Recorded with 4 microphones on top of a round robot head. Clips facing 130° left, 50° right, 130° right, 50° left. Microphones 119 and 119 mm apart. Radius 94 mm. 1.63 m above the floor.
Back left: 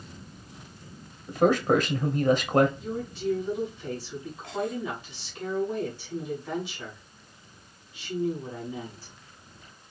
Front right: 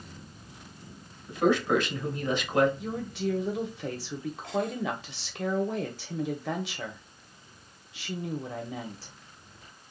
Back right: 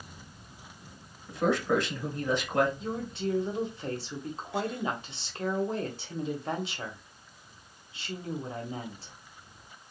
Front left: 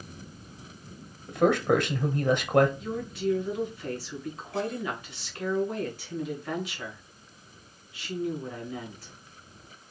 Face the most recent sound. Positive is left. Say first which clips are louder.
# even, front left 2 dB
turn(degrees=-65)